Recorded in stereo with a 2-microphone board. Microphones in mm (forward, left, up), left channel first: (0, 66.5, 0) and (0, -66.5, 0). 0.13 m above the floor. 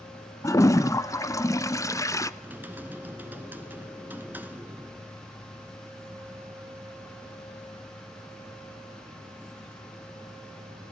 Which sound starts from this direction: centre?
Typing on a keyboard, at 2.4 s.